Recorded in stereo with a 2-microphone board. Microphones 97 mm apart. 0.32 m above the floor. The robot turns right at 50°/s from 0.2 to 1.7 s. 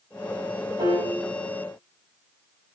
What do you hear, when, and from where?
0.8 s a piano: 60° right (ahead or behind), 5.5 m; by 1.1 s 75° right (ahead or behind), 5.5 m